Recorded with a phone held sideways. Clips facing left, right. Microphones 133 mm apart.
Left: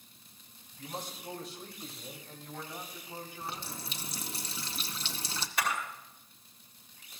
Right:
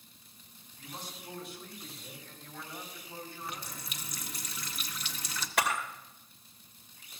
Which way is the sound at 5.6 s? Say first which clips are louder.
Right 3 dB; 75° right (ahead or behind).